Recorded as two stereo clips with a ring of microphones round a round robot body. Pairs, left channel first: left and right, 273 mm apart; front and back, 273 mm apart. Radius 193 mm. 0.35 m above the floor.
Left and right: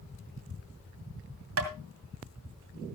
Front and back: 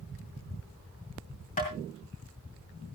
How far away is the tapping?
About 2.5 m.